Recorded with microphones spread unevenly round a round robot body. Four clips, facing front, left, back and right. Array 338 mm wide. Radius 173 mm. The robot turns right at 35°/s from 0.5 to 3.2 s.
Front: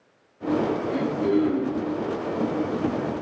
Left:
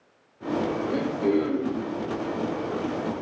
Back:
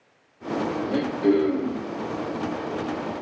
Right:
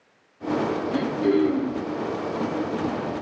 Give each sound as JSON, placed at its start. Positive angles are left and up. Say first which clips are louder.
{"t": 0.9, "sound": "throat clearing", "louder": "right 2 dB, back 4 dB", "azimuth_deg": 150, "distance_m": 4.0}